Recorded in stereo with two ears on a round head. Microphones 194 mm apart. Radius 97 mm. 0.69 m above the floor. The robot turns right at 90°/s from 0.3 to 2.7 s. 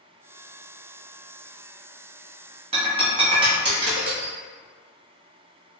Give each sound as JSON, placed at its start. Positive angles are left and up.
{"t": 2.7, "sound": "breaking glass", "side_deg": -25, "distance_m": 1.4}